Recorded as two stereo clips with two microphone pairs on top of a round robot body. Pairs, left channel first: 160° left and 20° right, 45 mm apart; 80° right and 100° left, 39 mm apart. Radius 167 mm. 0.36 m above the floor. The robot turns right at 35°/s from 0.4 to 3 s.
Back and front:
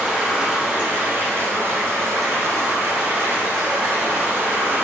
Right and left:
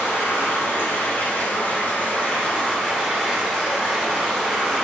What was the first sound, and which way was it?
Running water, 90° right.